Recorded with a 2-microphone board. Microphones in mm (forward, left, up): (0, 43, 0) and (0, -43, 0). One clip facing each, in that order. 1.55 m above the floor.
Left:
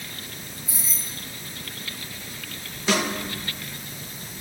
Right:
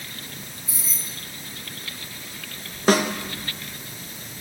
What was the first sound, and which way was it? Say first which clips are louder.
Keys jangling: even; 55° left (ahead or behind).